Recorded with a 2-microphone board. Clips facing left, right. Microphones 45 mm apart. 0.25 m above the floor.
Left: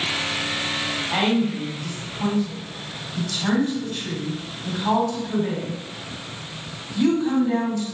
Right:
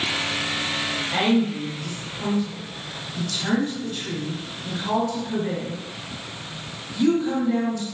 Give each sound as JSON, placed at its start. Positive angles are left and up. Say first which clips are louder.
{"t": 1.1, "sound": "a woman speaking", "louder": "even", "side_deg": 40, "distance_m": 1.4}